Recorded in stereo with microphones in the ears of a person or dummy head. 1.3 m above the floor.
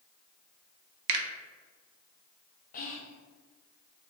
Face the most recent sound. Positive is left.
turn(degrees=45)  # may be behind; listen again after turning